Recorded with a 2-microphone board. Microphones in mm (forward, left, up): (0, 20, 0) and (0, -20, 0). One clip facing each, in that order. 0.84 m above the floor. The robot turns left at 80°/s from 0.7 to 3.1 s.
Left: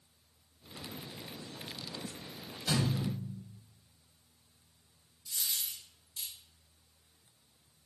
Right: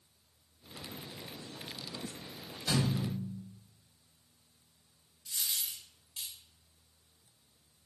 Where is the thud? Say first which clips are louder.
Even; straight ahead, 1.2 m; by 3.4 s 35° right, 1.2 m.